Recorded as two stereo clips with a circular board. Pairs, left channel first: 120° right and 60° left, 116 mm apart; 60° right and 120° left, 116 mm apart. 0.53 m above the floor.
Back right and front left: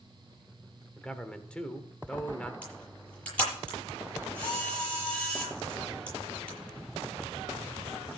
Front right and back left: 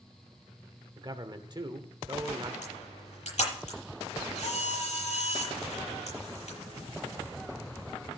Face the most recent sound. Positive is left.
turn(degrees=-40)